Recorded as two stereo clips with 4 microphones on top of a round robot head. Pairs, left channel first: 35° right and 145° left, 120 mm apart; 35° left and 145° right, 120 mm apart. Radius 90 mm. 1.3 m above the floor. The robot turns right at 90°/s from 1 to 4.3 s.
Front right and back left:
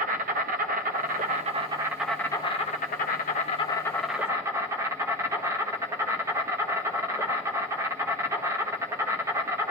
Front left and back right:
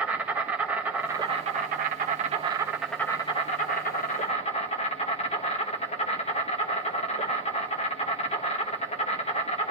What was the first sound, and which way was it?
An insect, 140° left.